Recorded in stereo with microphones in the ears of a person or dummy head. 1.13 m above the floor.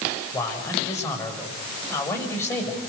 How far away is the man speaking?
About 6.5 m.